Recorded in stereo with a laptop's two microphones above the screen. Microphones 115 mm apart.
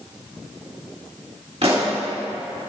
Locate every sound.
1.6 s a pop: 60° right (ahead or behind), 1.5 m